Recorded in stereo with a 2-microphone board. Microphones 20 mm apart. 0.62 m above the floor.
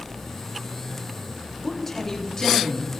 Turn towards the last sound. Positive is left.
turn(degrees=40)  # may be behind; listen again after turning